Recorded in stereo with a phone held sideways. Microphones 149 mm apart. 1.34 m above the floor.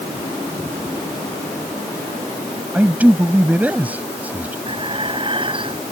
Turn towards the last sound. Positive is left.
turn(degrees=-35)  # may be behind; listen again after turning